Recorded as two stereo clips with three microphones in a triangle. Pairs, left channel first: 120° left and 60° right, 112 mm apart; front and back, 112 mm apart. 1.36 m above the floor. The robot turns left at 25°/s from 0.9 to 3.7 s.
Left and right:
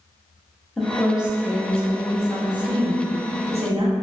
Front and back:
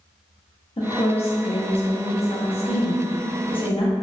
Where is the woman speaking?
30° left, 0.6 m; by 3.9 s 40° right, 0.6 m.